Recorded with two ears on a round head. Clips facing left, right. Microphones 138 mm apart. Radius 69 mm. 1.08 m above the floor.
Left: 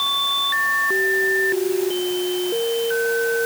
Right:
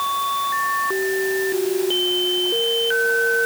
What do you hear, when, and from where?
Only background noise.